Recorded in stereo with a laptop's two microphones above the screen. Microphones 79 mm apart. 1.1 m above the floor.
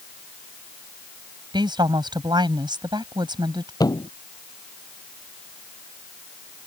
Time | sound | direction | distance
1.5 | a woman speaking | 70° right (ahead or behind) | ?
3.8 | a thud | 55° left (ahead or behind) | ?